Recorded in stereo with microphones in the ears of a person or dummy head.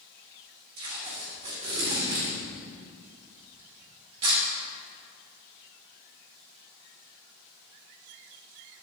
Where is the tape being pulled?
35° right (ahead or behind), 1.9 m.